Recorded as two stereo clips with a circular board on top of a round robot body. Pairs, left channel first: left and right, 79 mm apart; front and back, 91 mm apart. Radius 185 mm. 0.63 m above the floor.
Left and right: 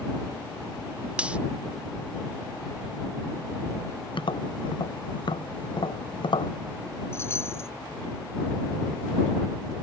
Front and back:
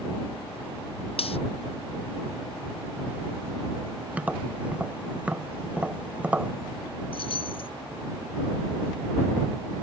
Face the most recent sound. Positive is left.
turn(degrees=30)